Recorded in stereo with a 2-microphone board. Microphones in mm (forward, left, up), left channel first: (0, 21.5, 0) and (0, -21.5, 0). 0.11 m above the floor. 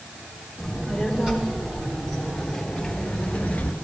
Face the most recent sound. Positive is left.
turn(degrees=45)  # may be behind; listen again after turning